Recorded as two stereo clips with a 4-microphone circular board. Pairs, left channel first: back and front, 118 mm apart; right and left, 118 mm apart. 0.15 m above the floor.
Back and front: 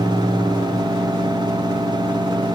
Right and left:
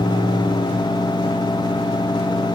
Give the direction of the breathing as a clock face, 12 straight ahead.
No breathing in this recording.